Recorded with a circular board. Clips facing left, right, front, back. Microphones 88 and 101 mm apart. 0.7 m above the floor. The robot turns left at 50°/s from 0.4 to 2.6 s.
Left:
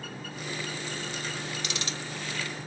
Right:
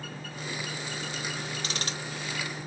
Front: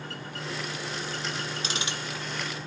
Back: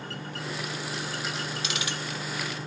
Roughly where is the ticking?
Ahead right.